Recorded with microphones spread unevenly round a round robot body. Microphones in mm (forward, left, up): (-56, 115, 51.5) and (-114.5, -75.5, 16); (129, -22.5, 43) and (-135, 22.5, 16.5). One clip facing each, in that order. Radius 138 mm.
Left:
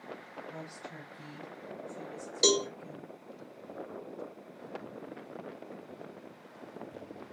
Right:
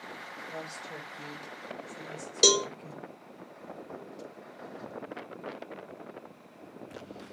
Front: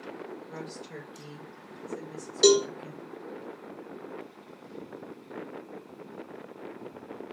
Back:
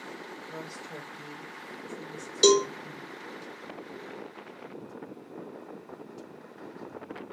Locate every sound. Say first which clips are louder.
0.5 s a woman speaking: right 4 dB, front 1 dB; 80° right, 2.5 m; by 3.1 s 40° right, 1.4 m
2.4 s a cowbell: right 2 dB, front 1 dB; 125° right, 0.9 m